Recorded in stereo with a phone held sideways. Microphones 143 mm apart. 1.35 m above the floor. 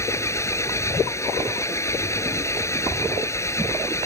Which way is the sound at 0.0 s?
20° left (ahead or behind).